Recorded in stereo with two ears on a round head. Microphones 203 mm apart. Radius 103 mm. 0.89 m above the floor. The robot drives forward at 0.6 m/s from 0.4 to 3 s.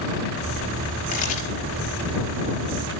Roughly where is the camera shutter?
Left.